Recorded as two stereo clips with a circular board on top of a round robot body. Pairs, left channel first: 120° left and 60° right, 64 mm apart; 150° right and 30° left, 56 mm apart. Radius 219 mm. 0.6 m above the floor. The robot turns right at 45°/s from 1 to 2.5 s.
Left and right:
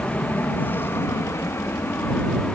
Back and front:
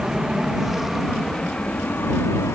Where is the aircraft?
95° left; by 2.6 s 165° right.